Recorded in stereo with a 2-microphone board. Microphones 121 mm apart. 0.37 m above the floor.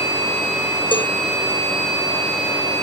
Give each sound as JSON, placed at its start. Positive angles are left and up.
{"t": 0.9, "sound": "a cowbell", "side_deg": 45}